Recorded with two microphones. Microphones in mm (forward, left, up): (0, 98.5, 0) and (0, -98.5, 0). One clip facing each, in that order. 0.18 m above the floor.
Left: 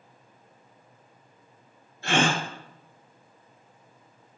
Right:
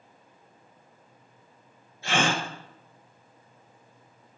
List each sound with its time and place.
2.0 s a gasp: 60° left (ahead or behind), 0.9 m